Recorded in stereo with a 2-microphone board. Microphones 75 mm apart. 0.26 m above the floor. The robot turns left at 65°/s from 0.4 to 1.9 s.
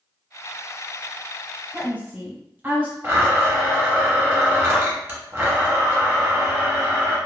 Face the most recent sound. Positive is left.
turn(degrees=-30)  # may be behind; listen again after turning